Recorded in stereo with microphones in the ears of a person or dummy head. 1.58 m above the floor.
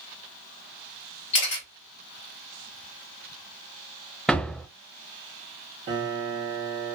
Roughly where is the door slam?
Centre.